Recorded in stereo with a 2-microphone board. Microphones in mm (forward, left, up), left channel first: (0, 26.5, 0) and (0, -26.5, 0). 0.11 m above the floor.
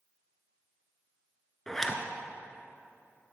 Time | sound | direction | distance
1.7 | a zipper | 10° left (ahead or behind) | 0.8 m